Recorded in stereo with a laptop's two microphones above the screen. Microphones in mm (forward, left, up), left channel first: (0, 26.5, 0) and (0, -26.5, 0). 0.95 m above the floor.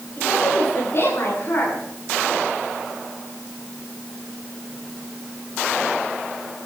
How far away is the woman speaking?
About 10 m.